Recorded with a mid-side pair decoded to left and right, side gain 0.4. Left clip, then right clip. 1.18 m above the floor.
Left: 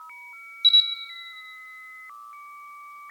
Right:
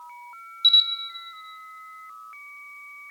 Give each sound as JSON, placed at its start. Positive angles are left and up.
{"t": 0.6, "sound": "a camera shutter", "azimuth_deg": -10, "distance_m": 1.4}